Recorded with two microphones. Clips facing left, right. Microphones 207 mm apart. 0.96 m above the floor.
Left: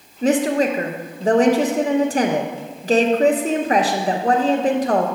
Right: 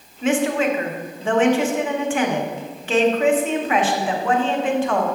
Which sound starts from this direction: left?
A woman speaking, at 0.2 s.